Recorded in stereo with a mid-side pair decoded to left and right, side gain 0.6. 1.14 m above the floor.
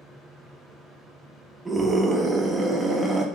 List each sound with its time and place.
0.0 s a fan: straight ahead, 1.7 m
1.6 s a scream: 15° right, 1.1 m